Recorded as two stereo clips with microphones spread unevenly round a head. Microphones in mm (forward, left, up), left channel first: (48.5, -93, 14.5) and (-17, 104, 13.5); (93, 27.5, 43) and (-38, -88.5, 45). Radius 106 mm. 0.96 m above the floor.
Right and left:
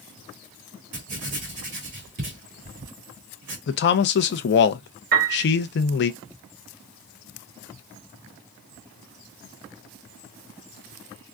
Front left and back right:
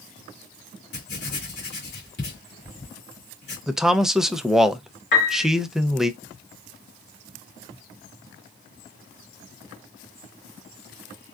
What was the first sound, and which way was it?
Writing, 75° left.